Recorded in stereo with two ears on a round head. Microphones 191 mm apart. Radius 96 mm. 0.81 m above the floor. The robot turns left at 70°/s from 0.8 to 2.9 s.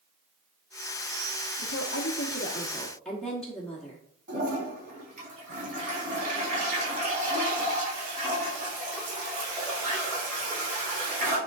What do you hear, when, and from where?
1.6 s a woman speaking: 95° left, 1.2 m; by 4.0 s 5° left, 1.2 m
4.3 s a toilet flushing: 40° right (ahead or behind), 4 m